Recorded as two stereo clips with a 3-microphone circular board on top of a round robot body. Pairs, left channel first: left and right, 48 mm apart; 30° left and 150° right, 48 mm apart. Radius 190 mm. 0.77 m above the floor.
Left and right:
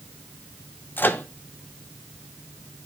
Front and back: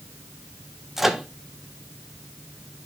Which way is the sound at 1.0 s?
125° left.